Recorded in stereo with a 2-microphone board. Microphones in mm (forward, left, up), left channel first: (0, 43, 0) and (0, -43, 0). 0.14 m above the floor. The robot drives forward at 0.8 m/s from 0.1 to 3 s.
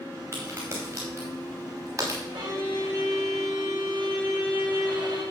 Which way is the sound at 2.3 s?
65° right (ahead or behind).